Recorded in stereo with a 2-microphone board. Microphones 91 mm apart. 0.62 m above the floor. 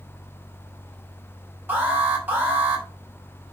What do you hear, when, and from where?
1.7 s an alarm: 20° right (ahead or behind), 5 m